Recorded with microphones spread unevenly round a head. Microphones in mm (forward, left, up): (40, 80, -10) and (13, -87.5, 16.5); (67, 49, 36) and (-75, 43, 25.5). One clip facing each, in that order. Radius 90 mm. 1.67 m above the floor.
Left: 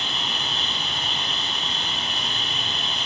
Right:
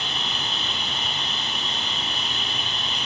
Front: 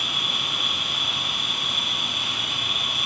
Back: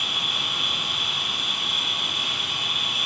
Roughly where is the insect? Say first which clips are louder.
Even, front 1 dB; right.